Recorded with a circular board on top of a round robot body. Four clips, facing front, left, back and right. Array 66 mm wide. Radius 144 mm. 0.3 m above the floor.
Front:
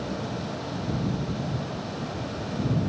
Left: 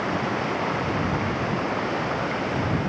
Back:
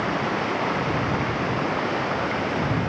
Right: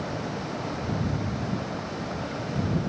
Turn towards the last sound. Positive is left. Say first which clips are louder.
# left 7 dB, back 8 dB
turn(degrees=150)